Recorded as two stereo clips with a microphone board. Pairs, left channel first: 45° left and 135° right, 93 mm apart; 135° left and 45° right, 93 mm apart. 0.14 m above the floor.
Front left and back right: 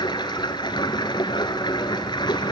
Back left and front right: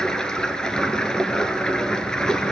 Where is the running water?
55° left, 1.6 m.